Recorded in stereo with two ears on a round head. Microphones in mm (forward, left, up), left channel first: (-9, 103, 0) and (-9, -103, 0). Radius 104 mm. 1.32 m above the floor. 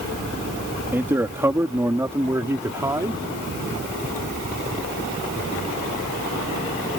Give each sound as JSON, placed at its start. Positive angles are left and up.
{"t": 0.9, "sound": "a man speaking", "side_deg": -10}